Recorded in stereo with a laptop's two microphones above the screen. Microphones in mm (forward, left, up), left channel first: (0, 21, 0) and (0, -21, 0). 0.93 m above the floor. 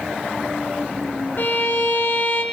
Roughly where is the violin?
Left.